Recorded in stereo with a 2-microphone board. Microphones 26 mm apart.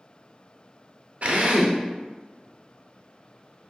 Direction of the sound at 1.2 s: 55° right (ahead or behind).